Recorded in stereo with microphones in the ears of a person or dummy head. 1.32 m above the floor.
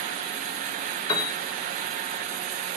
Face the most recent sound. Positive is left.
turn(degrees=25)  # may be behind; listen again after turning